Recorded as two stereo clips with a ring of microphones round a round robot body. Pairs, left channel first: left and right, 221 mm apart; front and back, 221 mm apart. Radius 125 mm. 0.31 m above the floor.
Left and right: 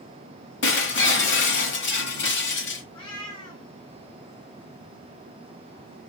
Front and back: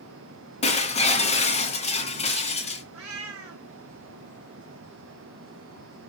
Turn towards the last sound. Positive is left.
turn(degrees=160)